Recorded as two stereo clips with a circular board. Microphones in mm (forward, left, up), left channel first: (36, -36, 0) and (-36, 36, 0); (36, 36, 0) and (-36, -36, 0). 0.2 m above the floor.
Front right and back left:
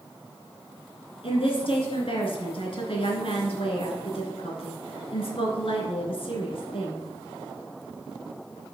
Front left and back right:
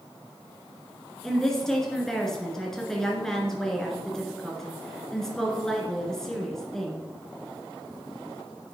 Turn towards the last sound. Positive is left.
turn(degrees=-40)